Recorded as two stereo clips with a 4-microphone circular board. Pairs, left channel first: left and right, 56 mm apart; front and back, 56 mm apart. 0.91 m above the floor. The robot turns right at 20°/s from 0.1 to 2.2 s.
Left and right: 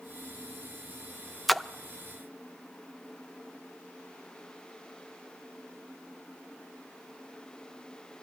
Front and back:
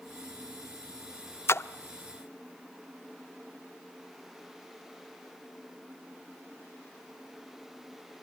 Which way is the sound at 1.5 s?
Straight ahead.